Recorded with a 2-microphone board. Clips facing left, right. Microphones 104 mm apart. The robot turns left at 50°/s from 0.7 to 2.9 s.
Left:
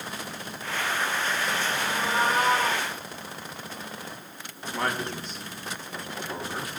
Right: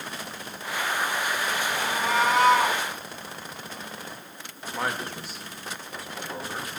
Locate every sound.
1.8 s a cat meowing: 60° right, 4.5 m; by 2.8 s 110° right, 4.5 m
4.6 s a man speaking: 5° right (ahead or behind), 3 m